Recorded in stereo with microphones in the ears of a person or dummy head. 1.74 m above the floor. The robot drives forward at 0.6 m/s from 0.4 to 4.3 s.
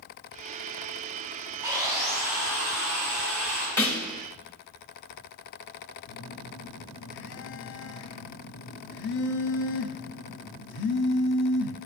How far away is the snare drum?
About 1.2 m.